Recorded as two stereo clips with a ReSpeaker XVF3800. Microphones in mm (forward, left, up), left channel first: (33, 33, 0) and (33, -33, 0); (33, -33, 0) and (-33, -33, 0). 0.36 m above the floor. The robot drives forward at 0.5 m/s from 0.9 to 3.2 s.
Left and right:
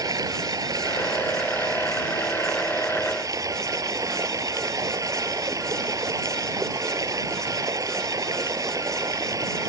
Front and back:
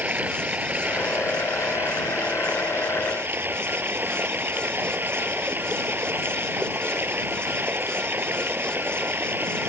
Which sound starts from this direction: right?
Running water, at 0.0 s.